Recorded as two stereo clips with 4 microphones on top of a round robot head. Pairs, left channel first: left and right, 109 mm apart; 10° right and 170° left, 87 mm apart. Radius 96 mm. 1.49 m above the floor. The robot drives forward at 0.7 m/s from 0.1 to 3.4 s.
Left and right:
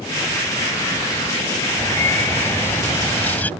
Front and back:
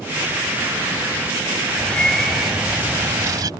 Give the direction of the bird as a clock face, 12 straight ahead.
11 o'clock.